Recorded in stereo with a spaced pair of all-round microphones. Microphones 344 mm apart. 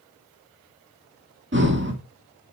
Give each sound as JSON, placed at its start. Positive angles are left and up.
{"t": 1.5, "sound": "breathing", "side_deg": -35, "distance_m": 2.0}